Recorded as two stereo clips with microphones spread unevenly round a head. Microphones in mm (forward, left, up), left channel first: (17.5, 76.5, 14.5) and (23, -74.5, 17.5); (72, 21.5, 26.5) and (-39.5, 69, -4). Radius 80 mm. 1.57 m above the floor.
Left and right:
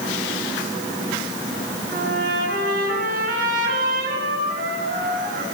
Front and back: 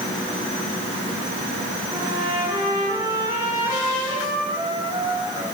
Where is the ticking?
I don't hear ticking.